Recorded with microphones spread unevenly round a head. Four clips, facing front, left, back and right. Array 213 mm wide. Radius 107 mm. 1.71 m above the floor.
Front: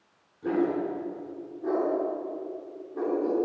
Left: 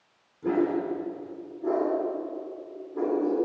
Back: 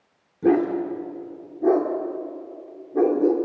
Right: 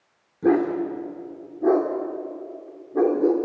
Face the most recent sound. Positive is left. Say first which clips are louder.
# right 5 dB, back 6 dB
turn(degrees=-135)